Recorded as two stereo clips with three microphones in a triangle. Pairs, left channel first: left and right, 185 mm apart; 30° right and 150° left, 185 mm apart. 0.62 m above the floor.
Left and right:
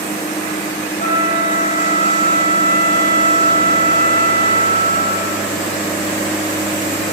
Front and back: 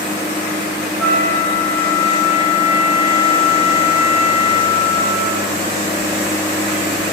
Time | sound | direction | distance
1.0 | a flute | 55° left | 1.2 m